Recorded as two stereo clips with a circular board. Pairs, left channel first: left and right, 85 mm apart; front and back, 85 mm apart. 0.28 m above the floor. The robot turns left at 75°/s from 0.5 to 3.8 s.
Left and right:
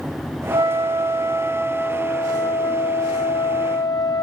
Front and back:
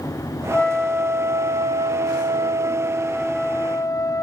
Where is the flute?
70° right, 0.6 m; by 4.2 s 45° left, 0.6 m.